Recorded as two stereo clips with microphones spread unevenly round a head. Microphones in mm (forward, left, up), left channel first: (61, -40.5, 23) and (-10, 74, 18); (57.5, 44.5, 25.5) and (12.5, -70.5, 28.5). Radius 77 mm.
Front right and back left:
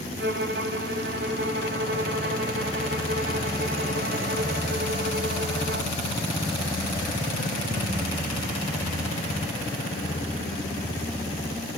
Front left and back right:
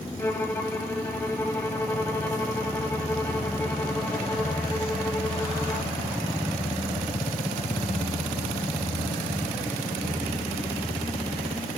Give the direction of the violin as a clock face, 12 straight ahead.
7 o'clock.